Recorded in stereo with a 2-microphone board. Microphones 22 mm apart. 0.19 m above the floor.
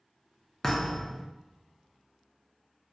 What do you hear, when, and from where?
0.6 s a thud: 10° left (ahead or behind), 0.5 m